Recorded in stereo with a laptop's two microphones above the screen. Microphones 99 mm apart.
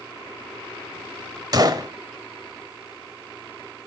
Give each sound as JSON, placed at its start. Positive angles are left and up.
{"t": 1.5, "sound": "a gunshot", "side_deg": -40, "distance_m": 1.1}